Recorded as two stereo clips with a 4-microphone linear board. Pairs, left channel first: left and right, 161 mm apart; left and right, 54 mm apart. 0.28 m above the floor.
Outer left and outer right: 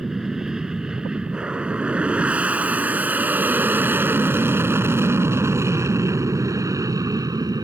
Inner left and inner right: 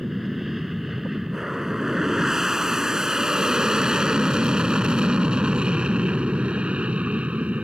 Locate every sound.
0.0 s an aircraft: 5° right (ahead or behind); by 7.6 s 25° right (ahead or behind)